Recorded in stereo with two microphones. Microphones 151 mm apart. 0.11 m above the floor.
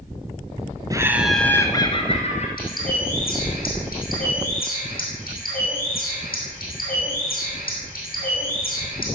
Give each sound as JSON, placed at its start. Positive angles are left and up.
{"t": 0.9, "sound": "laughter", "side_deg": -25, "distance_m": 1.1}
{"t": 2.6, "sound": "a bird", "side_deg": 75, "distance_m": 4.5}